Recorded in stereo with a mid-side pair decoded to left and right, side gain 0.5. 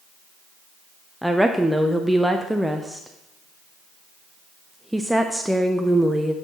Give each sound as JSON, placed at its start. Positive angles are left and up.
{"t": 1.2, "sound": "a woman speaking", "azimuth_deg": 0, "distance_m": 0.5}